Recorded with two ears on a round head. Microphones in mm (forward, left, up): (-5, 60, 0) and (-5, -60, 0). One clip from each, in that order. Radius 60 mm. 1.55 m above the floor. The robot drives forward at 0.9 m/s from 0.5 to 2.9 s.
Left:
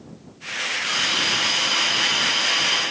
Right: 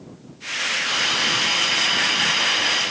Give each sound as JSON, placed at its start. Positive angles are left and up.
{"t": 0.9, "sound": "a hiss", "side_deg": 55, "distance_m": 2.0}